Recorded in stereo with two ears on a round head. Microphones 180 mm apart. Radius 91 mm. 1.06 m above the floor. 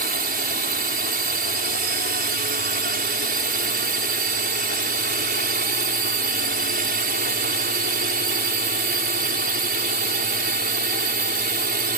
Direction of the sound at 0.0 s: 45° right (ahead or behind).